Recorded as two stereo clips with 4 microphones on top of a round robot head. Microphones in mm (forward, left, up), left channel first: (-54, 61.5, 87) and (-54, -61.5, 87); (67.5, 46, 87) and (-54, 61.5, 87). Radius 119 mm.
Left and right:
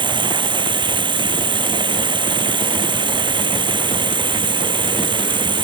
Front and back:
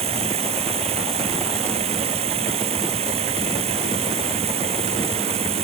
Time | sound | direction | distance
0.0 | running water | 140° right | ?